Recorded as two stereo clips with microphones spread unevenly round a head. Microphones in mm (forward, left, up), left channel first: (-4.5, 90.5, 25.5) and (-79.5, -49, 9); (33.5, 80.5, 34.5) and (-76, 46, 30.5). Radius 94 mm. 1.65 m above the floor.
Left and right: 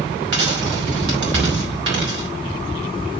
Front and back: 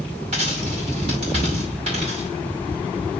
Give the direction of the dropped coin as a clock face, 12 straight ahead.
4 o'clock.